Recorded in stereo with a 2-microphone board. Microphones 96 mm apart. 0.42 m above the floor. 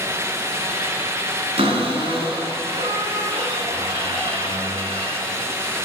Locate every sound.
1.6 s a cupboard door: 80° right, 2 m